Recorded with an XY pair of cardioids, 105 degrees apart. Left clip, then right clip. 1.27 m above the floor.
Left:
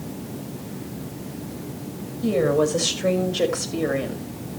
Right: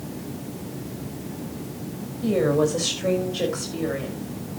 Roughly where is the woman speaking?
Ahead.